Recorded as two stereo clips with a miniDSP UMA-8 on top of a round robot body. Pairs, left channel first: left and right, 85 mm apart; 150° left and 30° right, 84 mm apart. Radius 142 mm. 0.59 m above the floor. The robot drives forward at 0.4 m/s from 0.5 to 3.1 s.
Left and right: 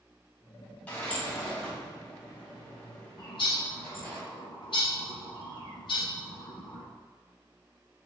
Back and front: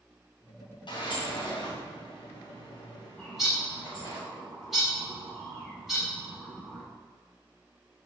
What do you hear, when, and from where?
0.9 s a sliding door: 160° left, 1.2 m; by 4.2 s 170° left, 2 m
3.2 s a bird: 55° left, 0.8 m